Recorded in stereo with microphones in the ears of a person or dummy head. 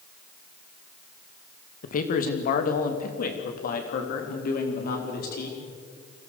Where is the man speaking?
55° left (ahead or behind), 2 m; by 5.6 s 60° left (ahead or behind), 4.5 m.